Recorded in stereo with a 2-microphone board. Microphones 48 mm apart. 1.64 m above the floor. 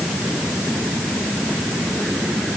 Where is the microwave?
I don't hear a microwave.